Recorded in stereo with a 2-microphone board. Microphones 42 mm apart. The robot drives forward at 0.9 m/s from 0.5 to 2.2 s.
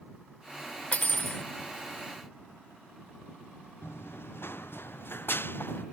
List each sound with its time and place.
0.9 s cutlery clinking: 35° left (ahead or behind)
3.8 s running footsteps: 70° left (ahead or behind); by 5.8 s 60° left (ahead or behind)